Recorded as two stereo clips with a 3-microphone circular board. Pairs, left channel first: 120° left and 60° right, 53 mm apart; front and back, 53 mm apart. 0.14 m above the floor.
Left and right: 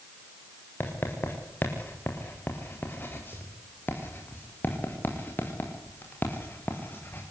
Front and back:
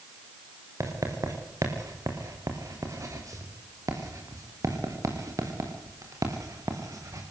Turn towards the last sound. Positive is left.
turn(degrees=170)